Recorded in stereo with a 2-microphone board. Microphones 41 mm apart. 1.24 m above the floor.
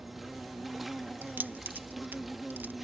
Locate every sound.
0.0 s an insect: centre (ahead or behind)
1.2 s keys jangling: 50° right (ahead or behind)